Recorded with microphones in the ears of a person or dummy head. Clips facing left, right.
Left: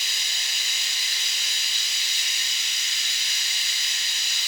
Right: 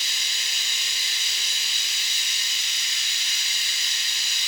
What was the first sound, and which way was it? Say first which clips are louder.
Running water: even; 70° right (ahead or behind).